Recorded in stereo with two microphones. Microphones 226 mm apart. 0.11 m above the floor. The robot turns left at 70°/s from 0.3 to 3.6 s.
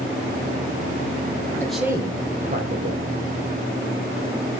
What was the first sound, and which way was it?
A man speaking, 10° left.